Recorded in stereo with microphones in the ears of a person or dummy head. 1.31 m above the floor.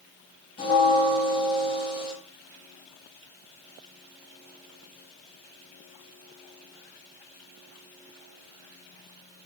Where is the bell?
30° left (ahead or behind), 2 m.